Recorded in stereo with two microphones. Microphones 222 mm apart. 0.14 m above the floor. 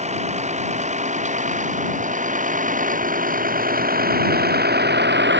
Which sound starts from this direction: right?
A vehicle, at 0.0 s.